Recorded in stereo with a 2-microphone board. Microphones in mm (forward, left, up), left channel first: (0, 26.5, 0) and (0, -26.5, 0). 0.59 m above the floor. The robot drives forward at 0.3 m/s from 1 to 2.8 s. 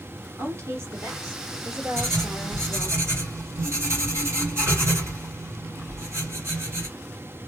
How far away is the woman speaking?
About 1.3 m.